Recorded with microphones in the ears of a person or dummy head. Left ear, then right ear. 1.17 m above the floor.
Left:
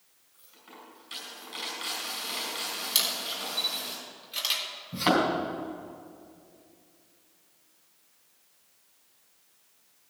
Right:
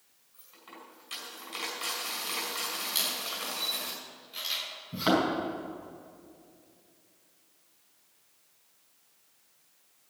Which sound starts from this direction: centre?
A thud, at 4.9 s.